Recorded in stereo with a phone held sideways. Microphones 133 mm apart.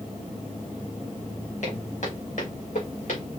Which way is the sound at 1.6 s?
70° left (ahead or behind).